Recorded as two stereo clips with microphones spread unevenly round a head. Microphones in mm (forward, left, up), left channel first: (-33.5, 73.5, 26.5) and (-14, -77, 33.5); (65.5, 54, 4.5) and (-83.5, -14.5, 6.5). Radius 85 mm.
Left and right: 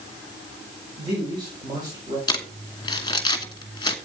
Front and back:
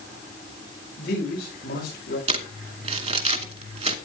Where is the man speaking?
20° right, 5.5 m; by 2.2 s 15° right, 6 m.